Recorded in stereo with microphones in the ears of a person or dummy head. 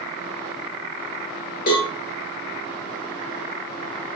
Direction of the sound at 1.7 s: 45° left (ahead or behind).